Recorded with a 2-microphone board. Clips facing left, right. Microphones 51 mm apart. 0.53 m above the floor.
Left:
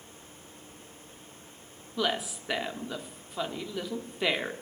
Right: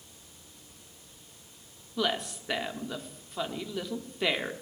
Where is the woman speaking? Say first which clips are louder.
Even; 5° left (ahead or behind), 1.2 m.